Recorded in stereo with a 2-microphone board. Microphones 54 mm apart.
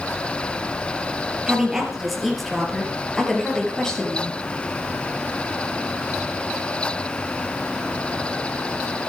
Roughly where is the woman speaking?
Centre.